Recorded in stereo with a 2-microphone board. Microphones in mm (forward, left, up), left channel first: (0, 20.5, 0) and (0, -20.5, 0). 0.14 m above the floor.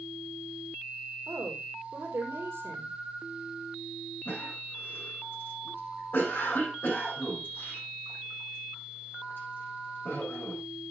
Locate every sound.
1.3 s a woman speaking: 70° right (ahead or behind), 4.5 m
4.2 s a cough: 60° left (ahead or behind), 8 m